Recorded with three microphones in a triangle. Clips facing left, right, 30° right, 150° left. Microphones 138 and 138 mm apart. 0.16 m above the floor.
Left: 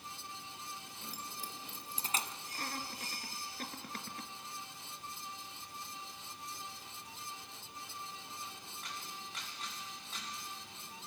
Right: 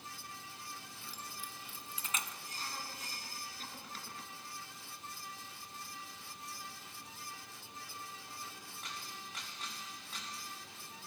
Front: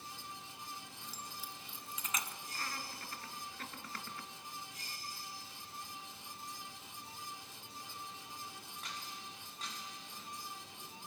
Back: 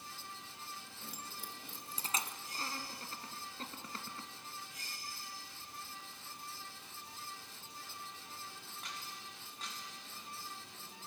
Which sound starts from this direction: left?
Laughter, at 2.5 s.